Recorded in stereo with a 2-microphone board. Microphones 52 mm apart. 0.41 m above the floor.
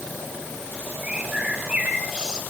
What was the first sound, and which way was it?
A bird, 15° right (ahead or behind).